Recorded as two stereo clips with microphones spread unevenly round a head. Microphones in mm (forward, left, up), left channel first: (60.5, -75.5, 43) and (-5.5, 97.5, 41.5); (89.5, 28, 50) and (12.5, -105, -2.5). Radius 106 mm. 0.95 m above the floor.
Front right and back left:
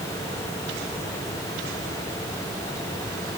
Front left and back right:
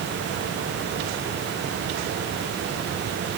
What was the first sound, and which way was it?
Only background noise.